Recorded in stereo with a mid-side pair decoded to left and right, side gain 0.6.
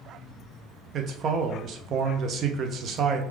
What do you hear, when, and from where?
0.9 s a man speaking: 50° right, 0.8 m